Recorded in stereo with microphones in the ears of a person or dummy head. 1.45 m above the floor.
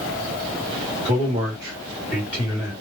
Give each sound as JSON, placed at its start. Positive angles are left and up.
{"t": 1.1, "sound": "a man speaking", "side_deg": -20, "distance_m": 1.6}